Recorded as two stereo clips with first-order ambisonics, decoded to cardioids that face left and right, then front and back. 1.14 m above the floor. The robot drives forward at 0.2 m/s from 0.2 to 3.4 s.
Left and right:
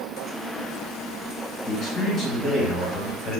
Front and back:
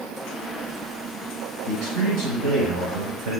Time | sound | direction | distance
1.7 | a man speaking | 155° left | 4 m